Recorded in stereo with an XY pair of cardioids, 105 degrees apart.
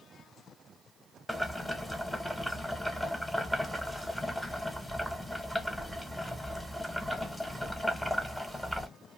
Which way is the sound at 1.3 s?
Straight ahead.